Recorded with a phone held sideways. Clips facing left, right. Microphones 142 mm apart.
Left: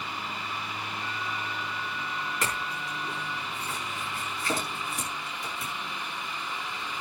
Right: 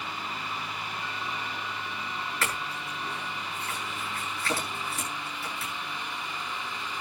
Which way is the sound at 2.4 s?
20° left (ahead or behind).